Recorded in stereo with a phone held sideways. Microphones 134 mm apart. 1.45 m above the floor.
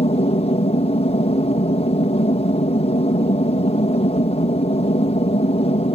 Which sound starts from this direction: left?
An aircraft, at 0.0 s.